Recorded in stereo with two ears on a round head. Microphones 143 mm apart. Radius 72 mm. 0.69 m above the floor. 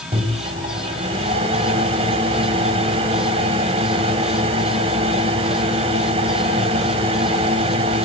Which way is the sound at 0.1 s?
35° right (ahead or behind).